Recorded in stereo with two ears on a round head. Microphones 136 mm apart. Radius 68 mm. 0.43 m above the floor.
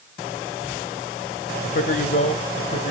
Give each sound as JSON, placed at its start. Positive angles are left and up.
{"t": 1.6, "sound": "a man speaking", "side_deg": 55, "distance_m": 1.6}